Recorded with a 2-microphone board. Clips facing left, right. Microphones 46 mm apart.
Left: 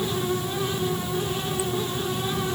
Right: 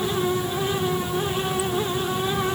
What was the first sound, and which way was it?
Only background noise.